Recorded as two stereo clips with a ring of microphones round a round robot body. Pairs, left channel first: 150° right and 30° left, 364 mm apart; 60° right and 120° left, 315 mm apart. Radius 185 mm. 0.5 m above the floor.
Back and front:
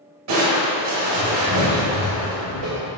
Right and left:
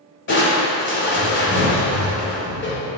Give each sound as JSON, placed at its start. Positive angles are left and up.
{"t": 0.3, "sound": "crushing", "azimuth_deg": -10, "distance_m": 2.0}